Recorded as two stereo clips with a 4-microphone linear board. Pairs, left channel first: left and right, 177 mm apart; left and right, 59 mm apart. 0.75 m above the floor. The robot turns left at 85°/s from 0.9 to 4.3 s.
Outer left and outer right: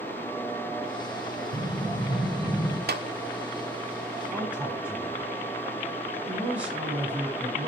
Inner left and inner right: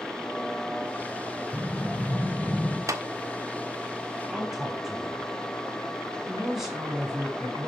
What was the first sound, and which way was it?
An explosion, 95° right.